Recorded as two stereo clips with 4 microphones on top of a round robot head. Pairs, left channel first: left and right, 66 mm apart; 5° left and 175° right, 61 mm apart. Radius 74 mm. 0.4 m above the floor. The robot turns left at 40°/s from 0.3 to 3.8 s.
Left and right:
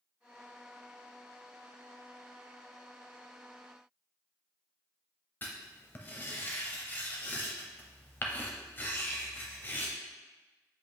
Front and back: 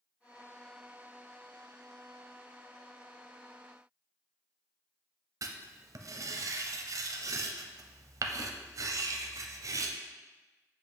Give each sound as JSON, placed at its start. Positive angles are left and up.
{"t": 5.4, "sound": "writing", "azimuth_deg": 150, "distance_m": 0.6}